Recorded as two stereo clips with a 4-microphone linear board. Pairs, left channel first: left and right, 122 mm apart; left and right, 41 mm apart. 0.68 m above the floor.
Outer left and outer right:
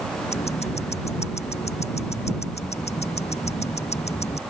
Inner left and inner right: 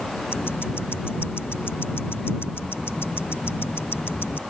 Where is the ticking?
65° left (ahead or behind).